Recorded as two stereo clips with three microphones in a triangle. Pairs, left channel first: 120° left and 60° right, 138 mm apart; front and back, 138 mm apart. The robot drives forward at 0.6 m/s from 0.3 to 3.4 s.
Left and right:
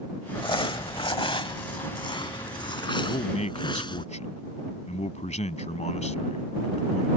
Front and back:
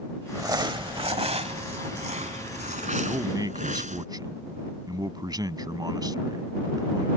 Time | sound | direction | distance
0.3 | crumpling | 125° left | ?
3.0 | a man speaking | 120° left | ?